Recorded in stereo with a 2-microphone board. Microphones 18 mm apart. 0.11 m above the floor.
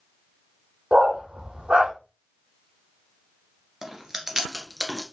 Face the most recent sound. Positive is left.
turn(degrees=-25)  # may be behind; listen again after turning